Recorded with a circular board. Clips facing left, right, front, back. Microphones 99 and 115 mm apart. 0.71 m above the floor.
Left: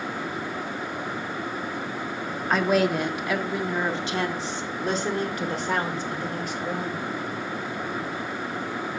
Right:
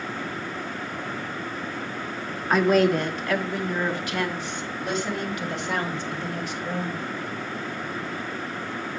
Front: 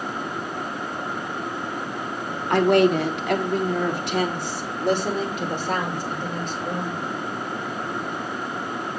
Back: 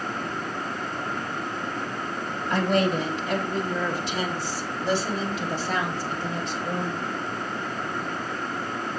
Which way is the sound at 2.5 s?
Straight ahead.